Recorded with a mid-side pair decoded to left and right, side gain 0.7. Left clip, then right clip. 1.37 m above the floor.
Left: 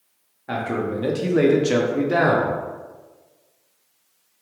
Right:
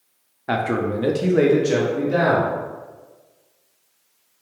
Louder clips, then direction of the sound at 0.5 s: Right 3 dB; 30° right.